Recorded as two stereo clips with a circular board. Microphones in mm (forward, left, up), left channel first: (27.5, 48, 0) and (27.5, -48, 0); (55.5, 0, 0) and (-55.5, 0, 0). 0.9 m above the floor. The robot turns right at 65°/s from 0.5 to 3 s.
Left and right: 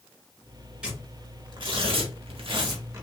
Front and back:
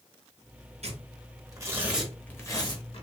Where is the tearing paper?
170° right, 0.9 m; by 3.0 s 30° right, 0.9 m.